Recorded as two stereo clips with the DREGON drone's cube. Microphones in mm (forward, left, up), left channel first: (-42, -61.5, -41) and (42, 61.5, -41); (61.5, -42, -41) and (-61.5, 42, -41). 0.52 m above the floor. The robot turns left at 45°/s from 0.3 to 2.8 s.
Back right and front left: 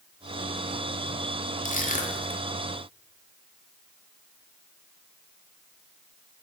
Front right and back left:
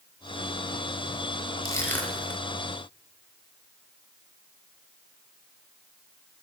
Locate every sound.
1.6 s crushing: 100° right, 0.6 m; by 2.4 s 130° right, 0.6 m